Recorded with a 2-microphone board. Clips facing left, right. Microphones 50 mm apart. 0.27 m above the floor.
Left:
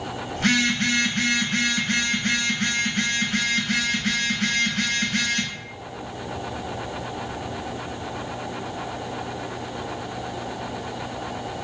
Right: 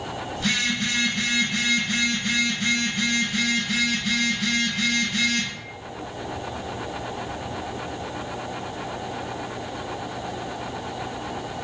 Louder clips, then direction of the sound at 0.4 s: Left 4 dB; 50° left (ahead or behind).